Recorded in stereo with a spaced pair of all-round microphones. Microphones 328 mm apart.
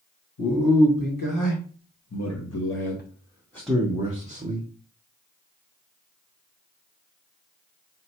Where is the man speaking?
80° left, 1.6 m; by 4.7 s 30° right (ahead or behind), 1.0 m.